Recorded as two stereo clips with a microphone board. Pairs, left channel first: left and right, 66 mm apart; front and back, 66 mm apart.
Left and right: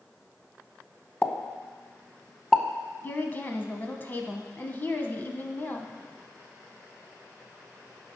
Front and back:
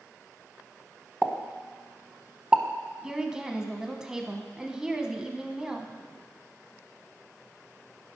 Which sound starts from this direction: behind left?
A pop, at 1.2 s.